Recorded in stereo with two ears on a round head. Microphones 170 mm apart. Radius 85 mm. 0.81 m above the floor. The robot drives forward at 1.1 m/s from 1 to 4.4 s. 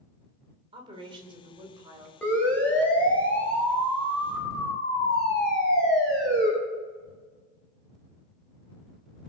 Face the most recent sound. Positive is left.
turn(degrees=0)  # may be behind; listen again after turning